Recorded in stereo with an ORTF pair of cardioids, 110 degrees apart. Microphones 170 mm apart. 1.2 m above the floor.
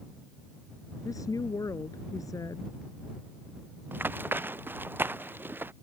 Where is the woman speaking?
20° left.